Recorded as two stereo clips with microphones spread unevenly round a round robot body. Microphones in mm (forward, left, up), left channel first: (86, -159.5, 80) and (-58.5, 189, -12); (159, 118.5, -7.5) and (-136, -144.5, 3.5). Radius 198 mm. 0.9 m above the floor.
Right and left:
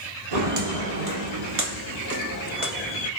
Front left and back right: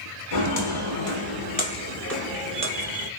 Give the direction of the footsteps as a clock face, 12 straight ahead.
10 o'clock.